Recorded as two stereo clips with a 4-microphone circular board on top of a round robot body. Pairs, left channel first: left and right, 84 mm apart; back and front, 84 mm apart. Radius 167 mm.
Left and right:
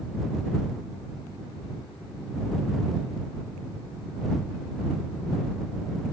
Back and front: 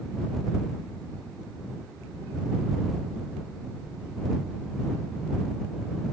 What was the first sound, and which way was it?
Only background noise.